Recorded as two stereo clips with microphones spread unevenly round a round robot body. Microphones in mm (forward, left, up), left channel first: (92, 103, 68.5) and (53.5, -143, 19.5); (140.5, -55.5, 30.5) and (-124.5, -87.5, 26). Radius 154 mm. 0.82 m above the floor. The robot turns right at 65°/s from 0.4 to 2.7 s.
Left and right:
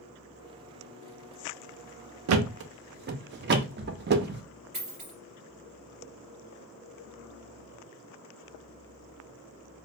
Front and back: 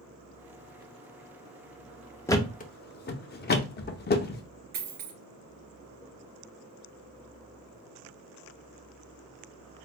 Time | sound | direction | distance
2.3 | a thud | 75° right | 0.5 m
4.7 | a dropped coin | 170° right | 3 m